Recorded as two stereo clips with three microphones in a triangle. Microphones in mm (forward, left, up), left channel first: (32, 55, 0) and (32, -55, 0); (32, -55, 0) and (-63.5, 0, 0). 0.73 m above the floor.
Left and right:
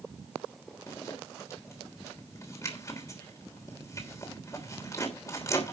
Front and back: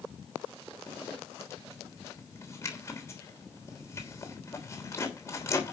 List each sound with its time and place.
0.9 s a zipper: 30° left, 3 m